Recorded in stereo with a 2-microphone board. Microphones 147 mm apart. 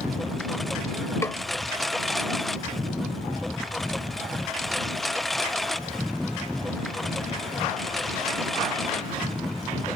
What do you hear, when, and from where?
0.0 s a lawn mower: centre (ahead or behind)
1.2 s a snare drum: 20° left (ahead or behind)